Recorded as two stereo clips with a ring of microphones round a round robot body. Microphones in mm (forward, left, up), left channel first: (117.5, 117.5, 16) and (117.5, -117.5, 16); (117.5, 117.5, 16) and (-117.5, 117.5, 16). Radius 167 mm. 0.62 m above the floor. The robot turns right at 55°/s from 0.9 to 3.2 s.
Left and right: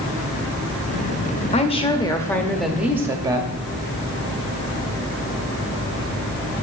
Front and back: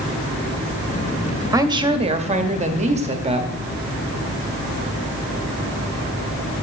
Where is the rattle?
I don't hear a rattle.